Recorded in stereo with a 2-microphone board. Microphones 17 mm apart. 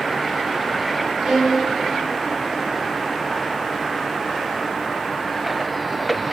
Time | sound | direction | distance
1.2 | a violin | 50° right (ahead or behind) | 2.5 m